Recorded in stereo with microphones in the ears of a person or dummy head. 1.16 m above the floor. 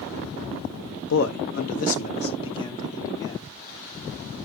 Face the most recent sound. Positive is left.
turn(degrees=20)  # may be behind; listen again after turning